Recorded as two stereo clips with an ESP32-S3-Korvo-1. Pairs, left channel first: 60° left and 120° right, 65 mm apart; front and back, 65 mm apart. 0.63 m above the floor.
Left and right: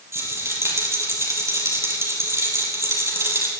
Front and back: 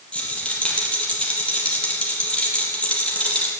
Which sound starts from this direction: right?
A rattle, at 0.1 s.